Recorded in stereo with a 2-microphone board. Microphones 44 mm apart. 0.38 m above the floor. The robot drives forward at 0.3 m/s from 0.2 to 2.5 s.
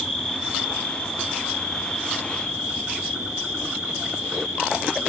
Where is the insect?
5° left (ahead or behind), 3.5 m.